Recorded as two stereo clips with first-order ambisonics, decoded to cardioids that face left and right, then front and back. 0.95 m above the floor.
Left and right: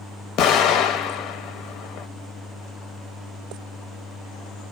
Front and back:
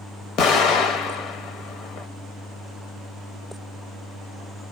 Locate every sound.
0.4 s an explosion: 45° left, 0.8 m